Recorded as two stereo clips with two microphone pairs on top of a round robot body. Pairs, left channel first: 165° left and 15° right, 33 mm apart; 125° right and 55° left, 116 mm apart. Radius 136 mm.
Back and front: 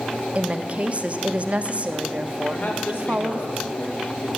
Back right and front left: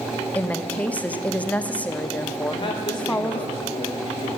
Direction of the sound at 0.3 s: 55° right.